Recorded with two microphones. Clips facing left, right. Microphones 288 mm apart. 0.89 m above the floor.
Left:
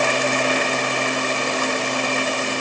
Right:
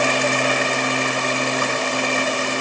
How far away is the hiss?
No hiss in this recording.